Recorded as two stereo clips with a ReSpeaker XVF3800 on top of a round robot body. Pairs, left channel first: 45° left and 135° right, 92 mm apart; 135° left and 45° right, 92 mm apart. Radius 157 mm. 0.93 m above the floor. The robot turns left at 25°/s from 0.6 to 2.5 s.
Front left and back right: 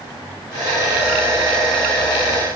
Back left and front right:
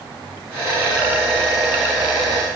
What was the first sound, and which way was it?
Only background noise.